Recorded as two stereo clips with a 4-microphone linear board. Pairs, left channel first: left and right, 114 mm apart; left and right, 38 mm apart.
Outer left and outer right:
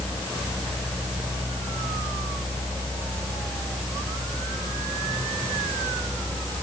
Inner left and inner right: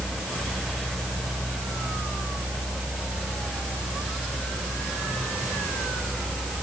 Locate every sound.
Only background noise.